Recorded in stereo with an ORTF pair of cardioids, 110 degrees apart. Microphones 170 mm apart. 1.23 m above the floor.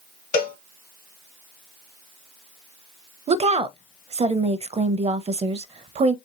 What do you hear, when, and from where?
0.3 s a cowbell: 55° left, 0.8 m
3.3 s a woman speaking: 40° right, 0.7 m